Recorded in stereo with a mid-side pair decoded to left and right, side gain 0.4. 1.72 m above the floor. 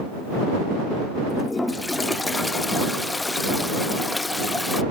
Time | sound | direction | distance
1.3 | a toilet flushing | 20° left | ?